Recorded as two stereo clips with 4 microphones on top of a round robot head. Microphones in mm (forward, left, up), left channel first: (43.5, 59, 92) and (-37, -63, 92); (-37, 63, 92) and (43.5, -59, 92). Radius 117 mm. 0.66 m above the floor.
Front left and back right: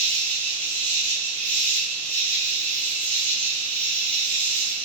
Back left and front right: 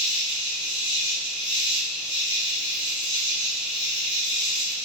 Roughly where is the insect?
Behind left.